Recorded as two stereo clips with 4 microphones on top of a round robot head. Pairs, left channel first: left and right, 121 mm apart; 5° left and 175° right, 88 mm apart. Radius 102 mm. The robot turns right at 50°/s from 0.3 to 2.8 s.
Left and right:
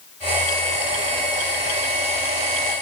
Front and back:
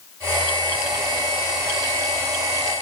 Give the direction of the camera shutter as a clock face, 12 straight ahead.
No camera shutter in this recording.